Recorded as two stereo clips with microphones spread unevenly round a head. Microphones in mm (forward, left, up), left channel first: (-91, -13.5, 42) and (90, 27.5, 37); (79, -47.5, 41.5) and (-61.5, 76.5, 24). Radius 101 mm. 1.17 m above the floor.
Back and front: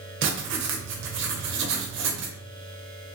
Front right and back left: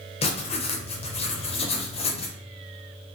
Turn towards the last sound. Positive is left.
turn(degrees=20)